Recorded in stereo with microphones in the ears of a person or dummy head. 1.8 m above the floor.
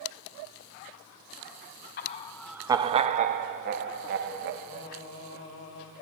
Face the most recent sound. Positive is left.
turn(degrees=70)  # may be behind; listen again after turning